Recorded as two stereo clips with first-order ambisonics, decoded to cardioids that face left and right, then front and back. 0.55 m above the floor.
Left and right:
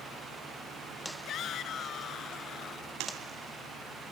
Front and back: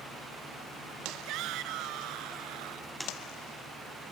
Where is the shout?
140° left; by 3.0 s 150° left.